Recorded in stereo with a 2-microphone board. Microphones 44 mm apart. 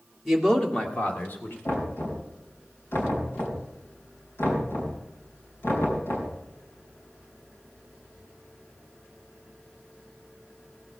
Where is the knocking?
70° left (ahead or behind), 4 m.